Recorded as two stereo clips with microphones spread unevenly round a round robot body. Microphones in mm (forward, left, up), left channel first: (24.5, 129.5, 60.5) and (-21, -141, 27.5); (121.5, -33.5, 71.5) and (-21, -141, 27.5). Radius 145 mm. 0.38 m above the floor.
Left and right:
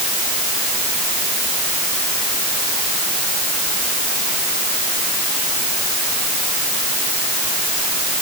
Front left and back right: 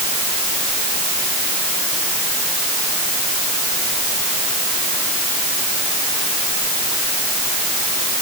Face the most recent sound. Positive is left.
No sound to turn to.